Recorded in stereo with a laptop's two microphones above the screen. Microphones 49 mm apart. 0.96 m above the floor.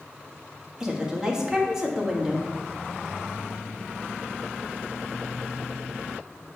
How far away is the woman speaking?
About 1.6 m.